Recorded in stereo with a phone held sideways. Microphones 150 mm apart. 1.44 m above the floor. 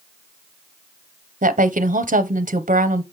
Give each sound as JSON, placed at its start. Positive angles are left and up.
{"t": 1.4, "sound": "a woman speaking", "side_deg": -60, "distance_m": 0.7}